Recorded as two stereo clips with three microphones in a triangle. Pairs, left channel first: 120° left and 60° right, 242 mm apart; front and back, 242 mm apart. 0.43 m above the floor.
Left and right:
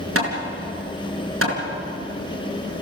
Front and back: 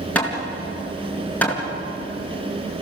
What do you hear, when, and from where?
0.1 s hammering: 85° right, 4 m